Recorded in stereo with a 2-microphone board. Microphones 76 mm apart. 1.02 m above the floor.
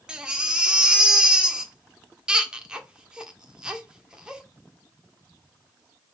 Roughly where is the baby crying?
Centre.